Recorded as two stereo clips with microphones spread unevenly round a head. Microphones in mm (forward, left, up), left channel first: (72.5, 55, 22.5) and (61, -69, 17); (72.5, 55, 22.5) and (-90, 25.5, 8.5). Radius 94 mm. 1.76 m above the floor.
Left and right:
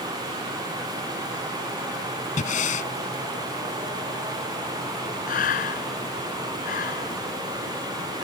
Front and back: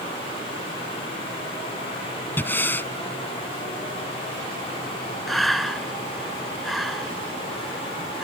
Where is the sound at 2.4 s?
85° left.